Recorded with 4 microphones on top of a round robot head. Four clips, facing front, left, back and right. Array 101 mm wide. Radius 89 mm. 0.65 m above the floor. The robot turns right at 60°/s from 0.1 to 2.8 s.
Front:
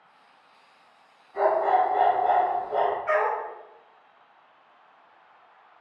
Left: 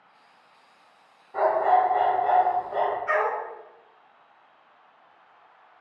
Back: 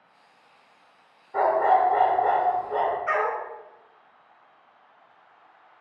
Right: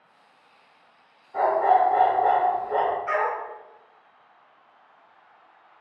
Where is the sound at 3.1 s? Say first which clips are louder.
Even, front 1 dB; 175° right, 1.1 m.